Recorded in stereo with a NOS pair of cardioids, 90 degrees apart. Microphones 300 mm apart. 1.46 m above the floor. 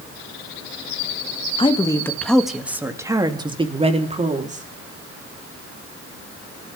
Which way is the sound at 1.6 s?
20° left.